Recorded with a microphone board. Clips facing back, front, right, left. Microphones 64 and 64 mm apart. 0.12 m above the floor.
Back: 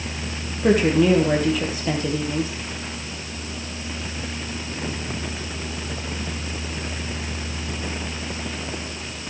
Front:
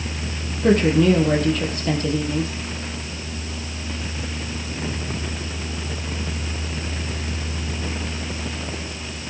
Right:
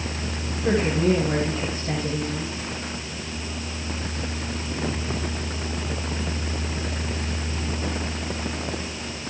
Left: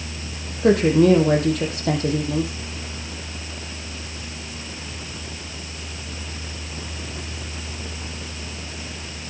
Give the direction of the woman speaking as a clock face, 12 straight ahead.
9 o'clock.